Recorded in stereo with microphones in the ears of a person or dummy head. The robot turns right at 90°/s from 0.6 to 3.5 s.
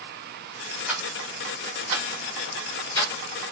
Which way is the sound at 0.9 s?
5° right (ahead or behind).